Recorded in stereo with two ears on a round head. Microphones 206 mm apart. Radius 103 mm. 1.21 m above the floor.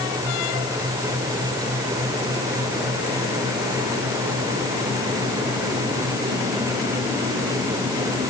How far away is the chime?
I don't hear a chime.